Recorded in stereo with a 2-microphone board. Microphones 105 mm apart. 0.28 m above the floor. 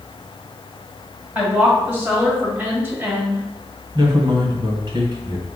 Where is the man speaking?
50° right (ahead or behind), 1.7 m.